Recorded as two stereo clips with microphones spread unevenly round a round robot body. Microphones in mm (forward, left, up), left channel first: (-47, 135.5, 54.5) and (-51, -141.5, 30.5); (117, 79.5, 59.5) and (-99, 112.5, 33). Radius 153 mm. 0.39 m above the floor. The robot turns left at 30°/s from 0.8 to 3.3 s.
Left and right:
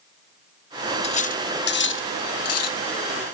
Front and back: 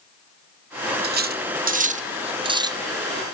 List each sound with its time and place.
1.0 s cutlery clinking: 155° left, 0.7 m; by 2.8 s 105° left, 0.7 m